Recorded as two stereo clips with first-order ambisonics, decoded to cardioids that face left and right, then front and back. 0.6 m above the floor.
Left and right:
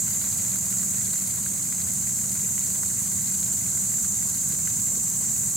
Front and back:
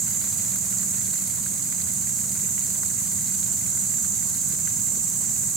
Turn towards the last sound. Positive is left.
turn(degrees=-175)